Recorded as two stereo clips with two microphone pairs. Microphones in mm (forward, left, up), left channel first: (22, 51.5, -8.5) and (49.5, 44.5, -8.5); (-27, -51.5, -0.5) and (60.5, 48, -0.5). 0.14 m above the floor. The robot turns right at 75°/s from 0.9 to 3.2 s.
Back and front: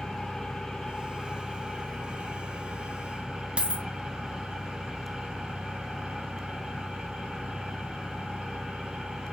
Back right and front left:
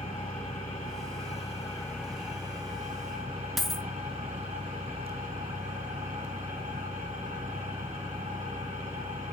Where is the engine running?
135° right, 3.5 m; by 9.3 s 35° left, 3.5 m.